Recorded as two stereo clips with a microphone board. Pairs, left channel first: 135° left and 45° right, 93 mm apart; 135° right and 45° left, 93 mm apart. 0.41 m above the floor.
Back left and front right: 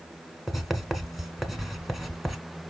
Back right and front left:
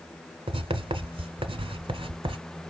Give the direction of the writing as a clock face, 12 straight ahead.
11 o'clock.